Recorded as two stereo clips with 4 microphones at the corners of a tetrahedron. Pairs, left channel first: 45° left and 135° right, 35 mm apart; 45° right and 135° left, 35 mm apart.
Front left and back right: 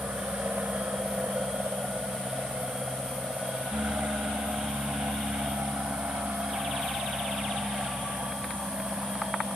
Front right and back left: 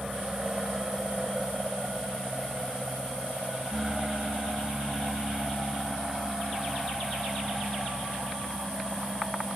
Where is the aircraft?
150° right; by 9.6 s 140° right.